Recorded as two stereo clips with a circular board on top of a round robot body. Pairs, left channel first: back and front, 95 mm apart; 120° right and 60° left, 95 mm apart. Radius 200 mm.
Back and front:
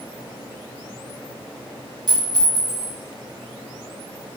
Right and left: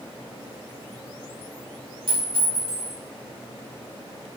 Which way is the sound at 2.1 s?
45° left.